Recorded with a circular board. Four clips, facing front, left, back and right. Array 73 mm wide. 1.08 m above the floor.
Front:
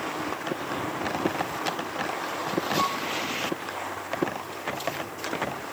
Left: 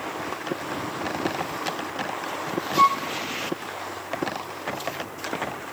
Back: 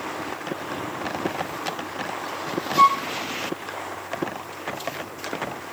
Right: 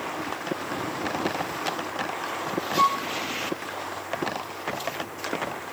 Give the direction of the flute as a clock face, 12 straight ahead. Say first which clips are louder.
Left 3 dB, back 15 dB; 7 o'clock.